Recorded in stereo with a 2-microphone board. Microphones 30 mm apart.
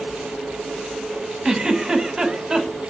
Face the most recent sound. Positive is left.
turn(degrees=-15)  # may be behind; listen again after turning